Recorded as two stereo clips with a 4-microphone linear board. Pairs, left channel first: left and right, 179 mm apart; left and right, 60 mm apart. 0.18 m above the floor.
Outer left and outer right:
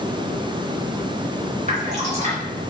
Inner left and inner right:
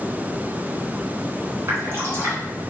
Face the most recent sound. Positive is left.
turn(degrees=-40)  # may be behind; listen again after turning